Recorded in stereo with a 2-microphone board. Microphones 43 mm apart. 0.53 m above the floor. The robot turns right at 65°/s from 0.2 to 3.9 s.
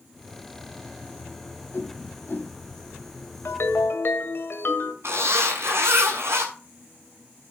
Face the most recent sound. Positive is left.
turn(degrees=-75)  # may be behind; listen again after turning